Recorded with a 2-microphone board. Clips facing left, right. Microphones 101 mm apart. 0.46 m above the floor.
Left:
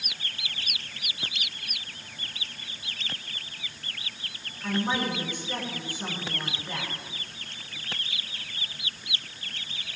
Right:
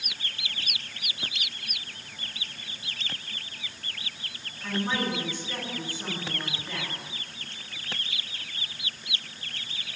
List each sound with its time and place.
4.6 s a woman speaking: 15° left (ahead or behind), 9 m